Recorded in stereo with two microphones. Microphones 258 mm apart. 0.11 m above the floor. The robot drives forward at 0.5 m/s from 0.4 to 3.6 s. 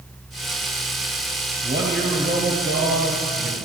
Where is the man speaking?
40° right (ahead or behind), 2.5 m; by 3.6 s 50° right (ahead or behind), 2 m.